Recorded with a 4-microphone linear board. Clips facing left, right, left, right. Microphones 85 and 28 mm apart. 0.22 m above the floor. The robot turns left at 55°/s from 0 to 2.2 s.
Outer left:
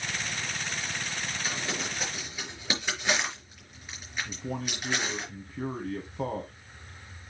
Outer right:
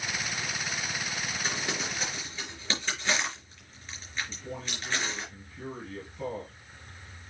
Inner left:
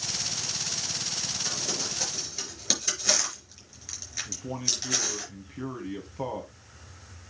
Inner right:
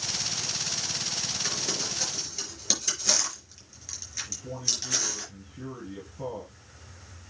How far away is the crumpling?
About 4.5 m.